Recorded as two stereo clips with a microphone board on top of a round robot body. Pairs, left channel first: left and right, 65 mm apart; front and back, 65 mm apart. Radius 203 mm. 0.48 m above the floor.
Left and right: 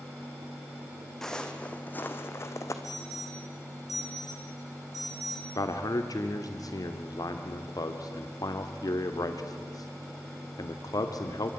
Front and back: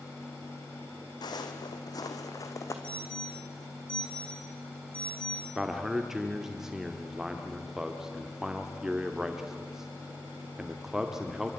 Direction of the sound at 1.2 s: 10° left.